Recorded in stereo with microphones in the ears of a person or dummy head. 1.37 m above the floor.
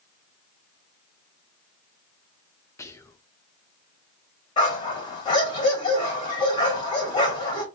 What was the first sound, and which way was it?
Whispering, 15° left (ahead or behind).